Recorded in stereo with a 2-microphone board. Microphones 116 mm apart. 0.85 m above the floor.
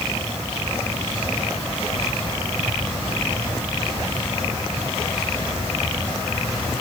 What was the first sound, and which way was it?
Only background noise.